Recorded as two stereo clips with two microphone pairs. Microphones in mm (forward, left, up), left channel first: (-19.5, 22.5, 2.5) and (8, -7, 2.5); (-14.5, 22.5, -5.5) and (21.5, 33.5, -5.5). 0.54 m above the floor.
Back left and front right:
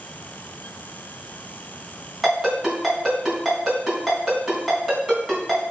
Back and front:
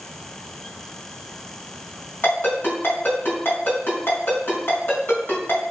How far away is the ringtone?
About 3.5 m.